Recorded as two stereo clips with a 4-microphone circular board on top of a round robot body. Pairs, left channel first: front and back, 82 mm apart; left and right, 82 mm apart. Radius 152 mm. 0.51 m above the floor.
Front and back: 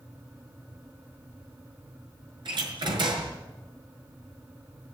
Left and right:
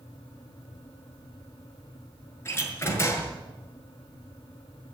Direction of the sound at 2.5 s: 150° left.